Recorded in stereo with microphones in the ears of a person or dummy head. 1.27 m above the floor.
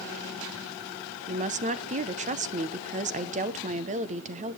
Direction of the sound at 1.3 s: 35° right (ahead or behind).